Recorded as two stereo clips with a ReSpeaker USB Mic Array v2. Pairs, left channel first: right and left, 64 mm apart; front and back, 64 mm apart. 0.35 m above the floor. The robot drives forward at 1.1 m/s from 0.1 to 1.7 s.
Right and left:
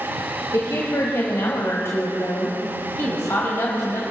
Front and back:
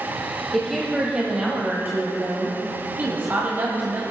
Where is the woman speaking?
85° right, 1.8 m; by 4.0 s 130° right, 2 m.